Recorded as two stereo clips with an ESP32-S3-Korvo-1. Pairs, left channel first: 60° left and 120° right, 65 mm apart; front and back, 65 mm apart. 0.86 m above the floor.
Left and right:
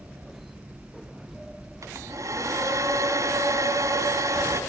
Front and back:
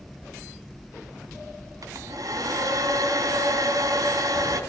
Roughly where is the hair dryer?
Behind right.